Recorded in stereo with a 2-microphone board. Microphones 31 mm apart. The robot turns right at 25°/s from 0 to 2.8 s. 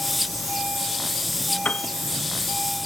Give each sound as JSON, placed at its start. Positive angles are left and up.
{"t": 1.6, "sound": "a piano", "side_deg": 50}